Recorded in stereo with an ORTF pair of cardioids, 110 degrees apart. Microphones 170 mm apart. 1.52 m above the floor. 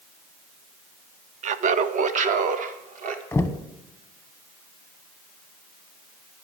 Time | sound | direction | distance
1.4 | laughter | 45° right | 0.6 m
3.3 | knocking | 10° left | 0.7 m